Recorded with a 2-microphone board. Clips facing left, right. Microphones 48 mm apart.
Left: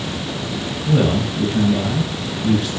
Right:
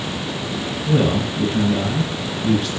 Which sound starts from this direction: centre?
A man speaking, at 0.8 s.